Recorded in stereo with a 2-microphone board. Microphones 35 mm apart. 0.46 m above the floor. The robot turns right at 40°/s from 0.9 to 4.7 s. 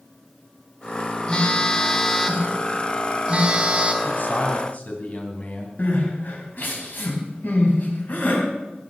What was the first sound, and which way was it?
A phone buzzing, 145° left.